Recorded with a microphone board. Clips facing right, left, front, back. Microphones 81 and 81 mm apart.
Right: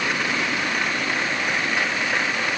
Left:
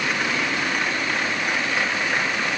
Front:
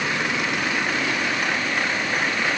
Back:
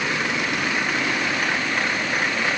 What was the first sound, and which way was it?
Only background noise.